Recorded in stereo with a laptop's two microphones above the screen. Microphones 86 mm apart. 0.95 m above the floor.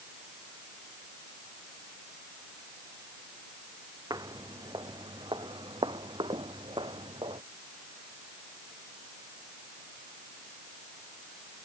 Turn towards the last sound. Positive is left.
turn(degrees=-75)  # may be behind; listen again after turning